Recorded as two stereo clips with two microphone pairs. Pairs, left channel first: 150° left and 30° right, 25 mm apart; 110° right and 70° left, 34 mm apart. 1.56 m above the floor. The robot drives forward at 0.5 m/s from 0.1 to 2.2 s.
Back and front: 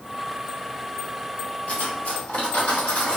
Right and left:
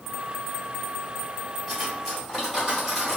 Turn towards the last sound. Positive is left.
turn(degrees=155)